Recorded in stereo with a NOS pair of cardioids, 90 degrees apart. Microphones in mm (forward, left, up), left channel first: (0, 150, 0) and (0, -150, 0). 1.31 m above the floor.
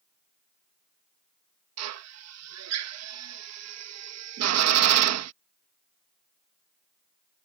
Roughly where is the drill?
Ahead right.